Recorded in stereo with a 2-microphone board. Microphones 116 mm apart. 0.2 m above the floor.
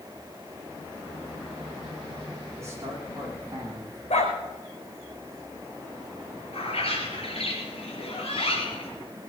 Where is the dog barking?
75° left (ahead or behind), 3.5 m.